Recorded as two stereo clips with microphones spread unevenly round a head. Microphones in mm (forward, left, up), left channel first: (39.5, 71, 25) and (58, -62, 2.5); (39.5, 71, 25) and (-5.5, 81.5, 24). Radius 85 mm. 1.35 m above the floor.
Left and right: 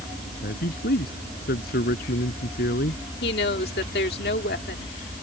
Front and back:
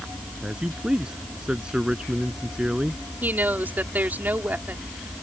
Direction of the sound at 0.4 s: 95° left.